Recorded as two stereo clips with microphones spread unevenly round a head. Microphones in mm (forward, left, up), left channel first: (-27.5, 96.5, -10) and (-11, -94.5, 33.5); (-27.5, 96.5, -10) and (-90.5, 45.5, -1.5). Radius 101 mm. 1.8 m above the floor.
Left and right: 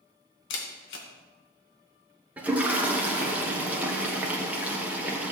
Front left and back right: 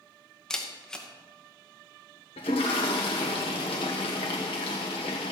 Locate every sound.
0.5 s a camera shutter: 120° left, 2.5 m
2.4 s a toilet flushing: 5° right, 1.4 m